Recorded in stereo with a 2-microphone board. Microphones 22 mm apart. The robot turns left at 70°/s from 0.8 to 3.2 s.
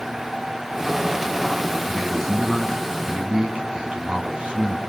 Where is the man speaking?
30° left, 3 m; by 4.8 s 60° right, 3 m.